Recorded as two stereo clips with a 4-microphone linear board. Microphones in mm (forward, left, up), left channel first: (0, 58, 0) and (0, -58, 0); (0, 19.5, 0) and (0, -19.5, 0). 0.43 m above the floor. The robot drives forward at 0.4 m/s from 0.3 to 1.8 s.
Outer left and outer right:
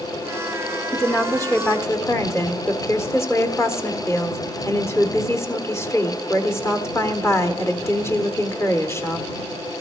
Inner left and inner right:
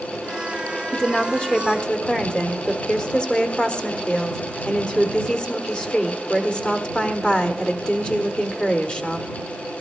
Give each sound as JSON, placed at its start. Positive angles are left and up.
{"t": 0.9, "sound": "a woman speaking", "side_deg": 25, "distance_m": 1.4}